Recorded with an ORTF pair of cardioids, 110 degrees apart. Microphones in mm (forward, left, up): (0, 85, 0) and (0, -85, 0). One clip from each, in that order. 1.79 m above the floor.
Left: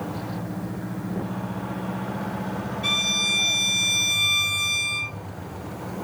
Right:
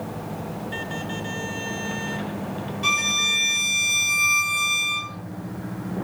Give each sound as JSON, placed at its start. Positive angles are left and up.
{"t": 2.8, "sound": "a violin", "azimuth_deg": -50, "distance_m": 1.4}